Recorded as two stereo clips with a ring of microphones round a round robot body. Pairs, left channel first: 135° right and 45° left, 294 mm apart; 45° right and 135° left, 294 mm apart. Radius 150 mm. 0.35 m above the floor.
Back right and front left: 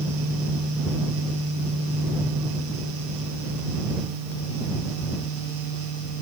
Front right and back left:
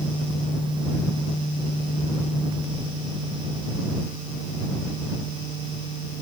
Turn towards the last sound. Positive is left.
No sound to turn to.